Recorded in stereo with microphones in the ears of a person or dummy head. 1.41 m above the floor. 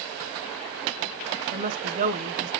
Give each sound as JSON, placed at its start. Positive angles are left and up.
{"t": 1.5, "sound": "a woman speaking", "side_deg": -50, "distance_m": 0.6}